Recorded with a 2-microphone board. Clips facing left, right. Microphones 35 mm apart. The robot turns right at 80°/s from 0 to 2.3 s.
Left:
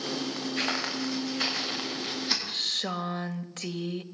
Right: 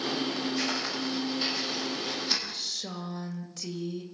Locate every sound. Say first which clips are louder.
0.6 s footsteps: left 1 dB; 40° left (ahead or behind), 8 m; by 2.4 s 5° left (ahead or behind), 9 m
2.5 s a woman speaking: left 6 dB; 45° left (ahead or behind), 1.9 m